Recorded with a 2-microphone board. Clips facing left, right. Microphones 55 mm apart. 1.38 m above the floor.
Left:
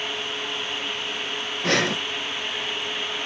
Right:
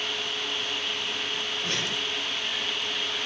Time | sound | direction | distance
1.6 | breathing | 70° left (ahead or behind) | ?